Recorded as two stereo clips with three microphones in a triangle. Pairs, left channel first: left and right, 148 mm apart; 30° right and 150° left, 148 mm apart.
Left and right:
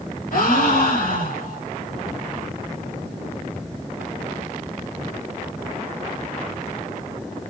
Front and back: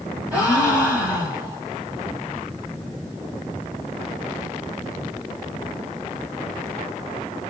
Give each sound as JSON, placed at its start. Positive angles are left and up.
{"t": 0.3, "sound": "a gasp", "azimuth_deg": 70, "distance_m": 1.7}